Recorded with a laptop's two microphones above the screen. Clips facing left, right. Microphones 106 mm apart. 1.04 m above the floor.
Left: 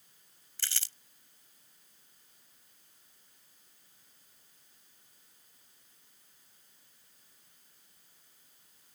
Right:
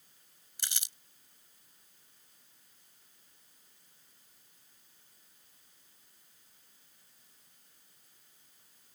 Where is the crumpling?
20° right (ahead or behind).